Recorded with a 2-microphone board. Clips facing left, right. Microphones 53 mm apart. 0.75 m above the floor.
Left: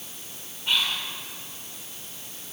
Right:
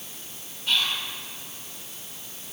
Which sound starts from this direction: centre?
Whispering, at 0.7 s.